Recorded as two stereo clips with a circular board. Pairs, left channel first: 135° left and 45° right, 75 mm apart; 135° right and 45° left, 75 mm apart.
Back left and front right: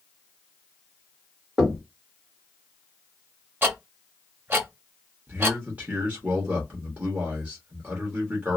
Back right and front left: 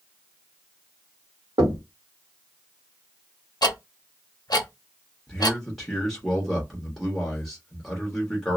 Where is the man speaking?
55° right, 1.1 m.